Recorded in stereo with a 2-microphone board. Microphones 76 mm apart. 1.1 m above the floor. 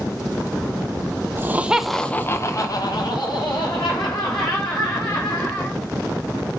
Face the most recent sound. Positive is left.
turn(degrees=80)